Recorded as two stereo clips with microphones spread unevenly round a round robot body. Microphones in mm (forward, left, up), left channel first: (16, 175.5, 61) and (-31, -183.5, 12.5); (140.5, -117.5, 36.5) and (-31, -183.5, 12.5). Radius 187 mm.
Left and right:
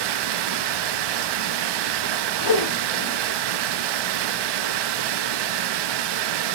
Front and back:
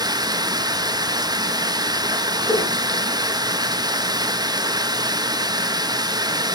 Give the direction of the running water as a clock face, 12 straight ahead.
3 o'clock.